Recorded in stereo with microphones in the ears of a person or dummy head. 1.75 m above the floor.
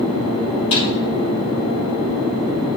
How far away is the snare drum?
About 2.5 m.